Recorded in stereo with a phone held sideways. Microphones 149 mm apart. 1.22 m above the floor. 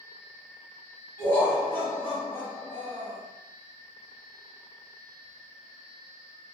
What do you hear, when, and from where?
1.2 s laughter: 15° left (ahead or behind), 1.5 m